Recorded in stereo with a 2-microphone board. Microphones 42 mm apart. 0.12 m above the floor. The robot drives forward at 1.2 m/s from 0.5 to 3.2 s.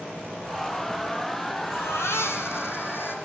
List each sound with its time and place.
1.6 s a baby crying: 75° left (ahead or behind), 2.5 m; by 3.1 s 60° left (ahead or behind), 3 m